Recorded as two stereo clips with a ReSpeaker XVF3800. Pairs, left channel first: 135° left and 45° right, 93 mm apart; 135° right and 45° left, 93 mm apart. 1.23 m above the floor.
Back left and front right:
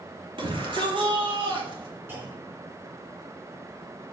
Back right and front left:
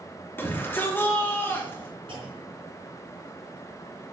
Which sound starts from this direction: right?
A shout, at 0.4 s.